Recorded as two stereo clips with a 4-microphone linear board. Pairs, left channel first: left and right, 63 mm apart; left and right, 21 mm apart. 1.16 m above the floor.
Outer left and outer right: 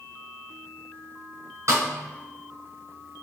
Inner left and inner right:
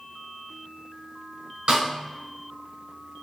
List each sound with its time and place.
1.7 s a snare drum: 50° right (ahead or behind), 1.8 m